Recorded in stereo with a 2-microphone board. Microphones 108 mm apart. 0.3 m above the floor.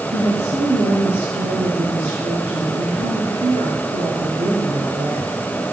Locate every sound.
0.1 s a woman speaking: 80° right, 5.5 m